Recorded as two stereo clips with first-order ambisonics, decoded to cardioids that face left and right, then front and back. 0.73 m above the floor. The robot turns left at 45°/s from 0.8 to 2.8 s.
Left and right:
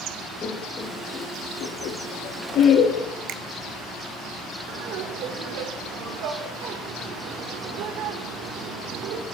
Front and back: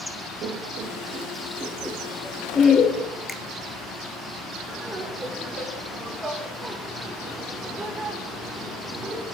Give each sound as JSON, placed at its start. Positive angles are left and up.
{"t": 0.4, "sound": "laughter", "azimuth_deg": 145, "distance_m": 0.8}
{"t": 3.3, "sound": "a finger snap", "azimuth_deg": -85, "distance_m": 0.6}
{"t": 4.7, "sound": "laughter", "azimuth_deg": -105, "distance_m": 2.0}